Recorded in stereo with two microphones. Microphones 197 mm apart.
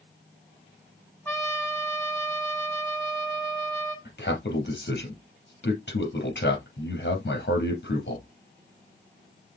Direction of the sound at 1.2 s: 10° left (ahead or behind).